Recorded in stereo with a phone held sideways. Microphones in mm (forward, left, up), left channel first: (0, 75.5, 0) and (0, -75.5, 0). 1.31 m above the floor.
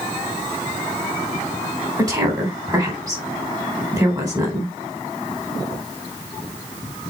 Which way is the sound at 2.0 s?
25° right (ahead or behind).